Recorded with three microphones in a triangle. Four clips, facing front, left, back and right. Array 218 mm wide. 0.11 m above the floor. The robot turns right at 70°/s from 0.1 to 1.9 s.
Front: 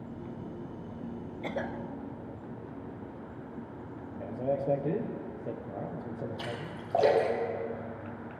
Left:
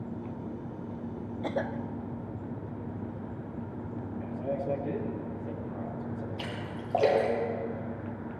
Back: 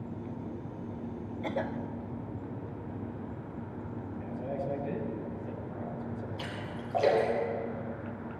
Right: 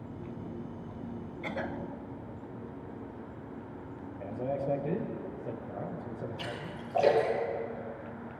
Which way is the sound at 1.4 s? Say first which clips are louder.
Left 4 dB, back 2 dB; 85° left.